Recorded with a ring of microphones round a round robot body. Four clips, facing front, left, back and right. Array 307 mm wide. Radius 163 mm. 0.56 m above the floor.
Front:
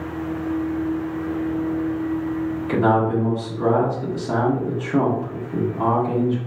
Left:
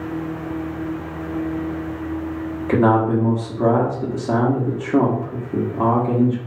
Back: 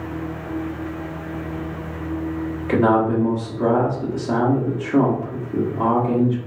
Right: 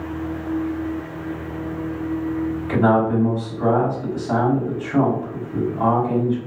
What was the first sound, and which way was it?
A man speaking, 100° left.